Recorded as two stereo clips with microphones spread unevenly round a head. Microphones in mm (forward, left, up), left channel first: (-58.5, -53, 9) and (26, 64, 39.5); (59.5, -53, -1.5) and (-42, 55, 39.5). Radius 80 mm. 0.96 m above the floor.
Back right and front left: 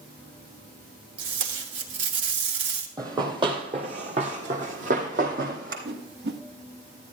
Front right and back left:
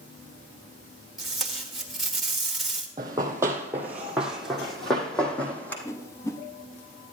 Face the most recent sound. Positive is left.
turn(degrees=25)